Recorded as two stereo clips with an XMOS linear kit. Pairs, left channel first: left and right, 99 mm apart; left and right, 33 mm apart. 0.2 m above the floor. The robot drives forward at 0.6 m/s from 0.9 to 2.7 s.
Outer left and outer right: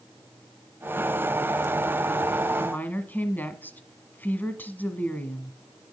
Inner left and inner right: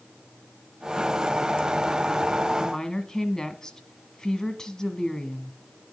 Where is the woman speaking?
20° left (ahead or behind), 1.4 m.